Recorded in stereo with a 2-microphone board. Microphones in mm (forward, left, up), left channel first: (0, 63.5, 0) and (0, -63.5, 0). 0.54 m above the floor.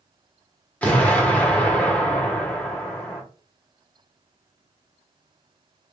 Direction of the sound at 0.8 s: 10° left (ahead or behind).